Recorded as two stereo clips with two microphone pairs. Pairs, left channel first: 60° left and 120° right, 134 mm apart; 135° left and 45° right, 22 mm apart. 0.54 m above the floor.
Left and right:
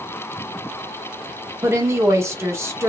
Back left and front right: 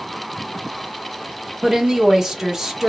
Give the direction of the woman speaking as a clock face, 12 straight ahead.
3 o'clock.